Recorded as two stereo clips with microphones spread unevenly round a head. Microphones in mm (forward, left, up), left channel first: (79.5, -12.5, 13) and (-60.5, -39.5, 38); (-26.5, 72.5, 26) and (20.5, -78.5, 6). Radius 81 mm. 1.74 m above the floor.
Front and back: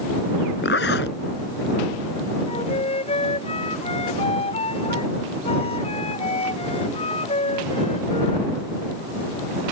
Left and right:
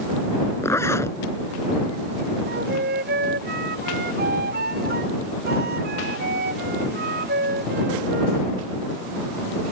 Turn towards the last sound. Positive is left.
turn(degrees=-40)